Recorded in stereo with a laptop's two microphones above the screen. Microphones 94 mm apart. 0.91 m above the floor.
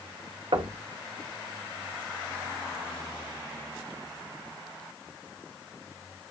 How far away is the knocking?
About 0.8 m.